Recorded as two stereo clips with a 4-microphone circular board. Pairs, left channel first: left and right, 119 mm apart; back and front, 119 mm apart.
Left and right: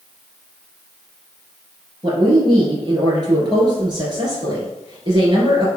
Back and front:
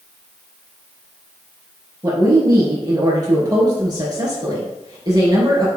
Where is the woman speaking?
45° right, 3 m.